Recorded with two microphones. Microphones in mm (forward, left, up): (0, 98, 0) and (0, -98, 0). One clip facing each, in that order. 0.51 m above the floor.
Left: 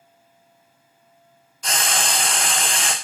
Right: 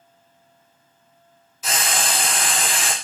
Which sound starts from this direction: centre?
Frying, at 1.6 s.